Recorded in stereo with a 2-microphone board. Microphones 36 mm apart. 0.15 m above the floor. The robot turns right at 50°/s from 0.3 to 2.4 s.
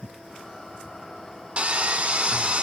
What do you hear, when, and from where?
1.6 s sawing: 115° right, 0.8 m; by 2.6 s 70° right, 0.8 m